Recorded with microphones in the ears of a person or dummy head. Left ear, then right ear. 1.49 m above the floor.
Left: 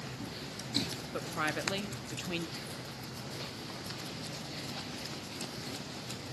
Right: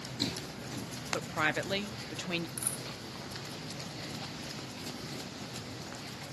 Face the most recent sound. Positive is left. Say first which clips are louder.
# right 2 dB
turn(degrees=-55)  # may be behind; listen again after turning